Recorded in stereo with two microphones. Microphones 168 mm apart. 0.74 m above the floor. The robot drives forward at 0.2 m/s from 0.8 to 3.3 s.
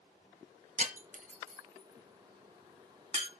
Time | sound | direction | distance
0.8 | breaking glass | 50° right (ahead or behind) | 1.6 m